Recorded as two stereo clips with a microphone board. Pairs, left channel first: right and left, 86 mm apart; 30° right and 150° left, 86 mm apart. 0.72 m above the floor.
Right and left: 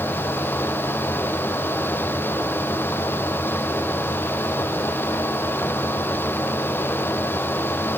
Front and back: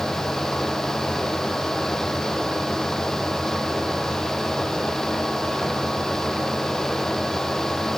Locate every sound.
Only background noise.